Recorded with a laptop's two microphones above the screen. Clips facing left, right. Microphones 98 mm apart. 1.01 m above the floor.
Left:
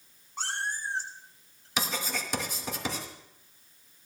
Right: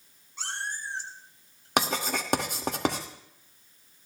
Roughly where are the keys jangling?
I don't hear keys jangling.